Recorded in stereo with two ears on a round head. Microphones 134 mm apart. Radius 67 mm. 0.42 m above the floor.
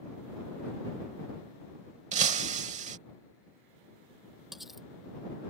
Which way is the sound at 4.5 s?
Centre (ahead or behind).